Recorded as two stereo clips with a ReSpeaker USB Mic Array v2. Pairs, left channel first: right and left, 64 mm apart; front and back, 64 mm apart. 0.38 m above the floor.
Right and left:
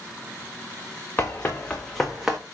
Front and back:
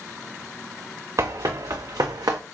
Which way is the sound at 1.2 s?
150° right.